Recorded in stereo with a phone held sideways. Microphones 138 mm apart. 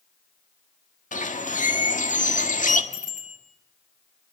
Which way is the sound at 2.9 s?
70° right (ahead or behind).